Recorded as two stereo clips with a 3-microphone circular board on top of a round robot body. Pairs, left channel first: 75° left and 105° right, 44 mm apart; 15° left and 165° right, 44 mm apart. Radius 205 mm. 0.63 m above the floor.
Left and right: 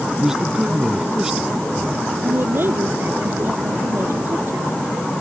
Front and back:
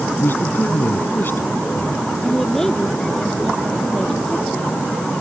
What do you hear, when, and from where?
0.1 s a man speaking: 25° right
2.2 s a woman speaking: 65° right